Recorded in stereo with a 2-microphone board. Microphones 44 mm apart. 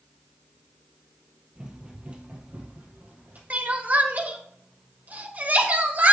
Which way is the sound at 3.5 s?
40° right (ahead or behind).